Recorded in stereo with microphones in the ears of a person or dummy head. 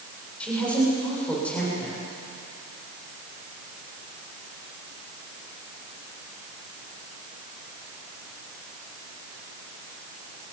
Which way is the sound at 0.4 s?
5° left (ahead or behind).